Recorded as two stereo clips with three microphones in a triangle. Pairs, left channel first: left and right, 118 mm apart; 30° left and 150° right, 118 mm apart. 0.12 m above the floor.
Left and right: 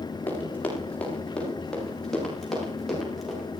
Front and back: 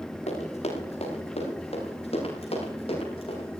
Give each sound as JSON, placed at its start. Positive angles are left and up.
{"t": 0.3, "sound": "running footsteps", "azimuth_deg": 15, "distance_m": 8.5}